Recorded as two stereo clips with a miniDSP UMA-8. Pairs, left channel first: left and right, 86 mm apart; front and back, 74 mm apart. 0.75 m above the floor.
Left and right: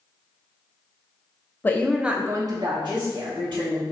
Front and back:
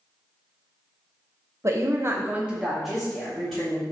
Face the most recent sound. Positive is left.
turn(degrees=-80)